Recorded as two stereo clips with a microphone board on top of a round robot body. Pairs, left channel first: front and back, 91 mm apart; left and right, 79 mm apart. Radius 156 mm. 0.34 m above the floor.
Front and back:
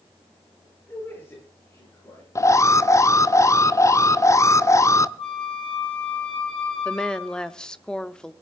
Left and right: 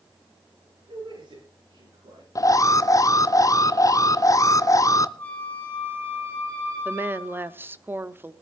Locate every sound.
0.9 s a man speaking: 70° right, 9 m; by 2.2 s 60° right, 8 m
2.4 s an alarm: 50° left, 0.9 m
5.2 s a flute: 15° left, 5.5 m
6.8 s a woman speaking: 75° right, 1.2 m